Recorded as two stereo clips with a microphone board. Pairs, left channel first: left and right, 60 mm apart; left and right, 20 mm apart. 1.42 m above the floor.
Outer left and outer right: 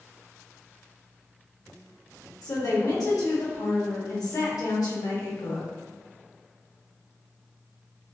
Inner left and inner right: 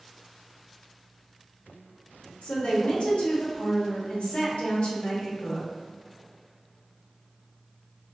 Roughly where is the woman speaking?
Left.